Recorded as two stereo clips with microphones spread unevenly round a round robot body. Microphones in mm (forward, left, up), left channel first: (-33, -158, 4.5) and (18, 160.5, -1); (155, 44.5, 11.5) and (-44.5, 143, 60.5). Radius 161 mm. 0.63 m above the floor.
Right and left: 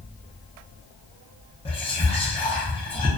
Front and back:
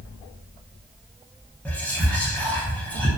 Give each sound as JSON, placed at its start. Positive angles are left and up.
{"t": 1.6, "sound": "whispering", "azimuth_deg": -55, "distance_m": 0.5}